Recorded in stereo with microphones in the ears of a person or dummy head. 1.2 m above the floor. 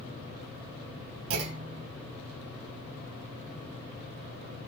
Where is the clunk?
75° right (ahead or behind), 3.5 m.